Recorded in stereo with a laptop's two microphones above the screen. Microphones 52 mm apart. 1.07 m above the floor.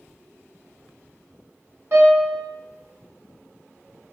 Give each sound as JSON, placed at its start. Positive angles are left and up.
{"t": 1.9, "sound": "a piano", "side_deg": -50, "distance_m": 1.6}